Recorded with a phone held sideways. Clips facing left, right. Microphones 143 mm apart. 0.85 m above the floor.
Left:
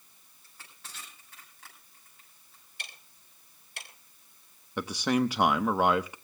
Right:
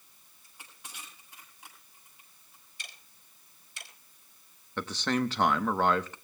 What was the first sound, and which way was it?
Crushing, 15° right (ahead or behind).